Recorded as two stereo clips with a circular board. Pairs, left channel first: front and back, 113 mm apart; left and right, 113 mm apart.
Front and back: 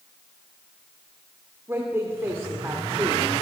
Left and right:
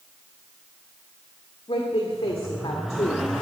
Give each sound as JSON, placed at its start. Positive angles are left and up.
{"t": 1.7, "sound": "a woman speaking", "azimuth_deg": 115, "distance_m": 1.5}